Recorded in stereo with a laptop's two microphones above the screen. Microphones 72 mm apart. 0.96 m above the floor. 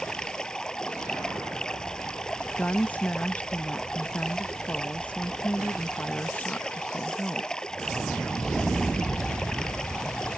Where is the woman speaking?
20° left (ahead or behind).